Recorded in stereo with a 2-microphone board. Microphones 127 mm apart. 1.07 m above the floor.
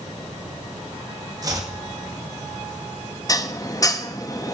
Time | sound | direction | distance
1.4 | chopping | 30° right (ahead or behind) | 2 m
3.3 | dishes clattering | 25° left (ahead or behind) | 0.8 m